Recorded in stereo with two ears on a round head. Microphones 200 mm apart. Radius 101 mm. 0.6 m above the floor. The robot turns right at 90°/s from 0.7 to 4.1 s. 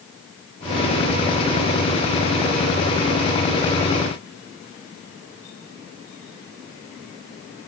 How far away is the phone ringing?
I don't hear a phone ringing.